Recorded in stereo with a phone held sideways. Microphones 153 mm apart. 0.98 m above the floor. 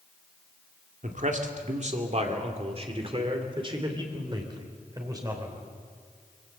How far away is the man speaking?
About 2 m.